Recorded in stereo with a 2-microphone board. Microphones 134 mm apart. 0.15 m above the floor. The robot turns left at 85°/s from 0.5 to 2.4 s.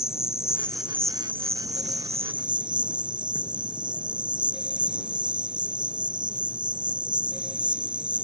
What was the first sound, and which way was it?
An insect, 25° left.